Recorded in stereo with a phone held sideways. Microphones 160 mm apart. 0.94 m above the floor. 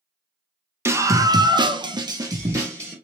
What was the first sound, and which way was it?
A scream, 15° right (ahead or behind).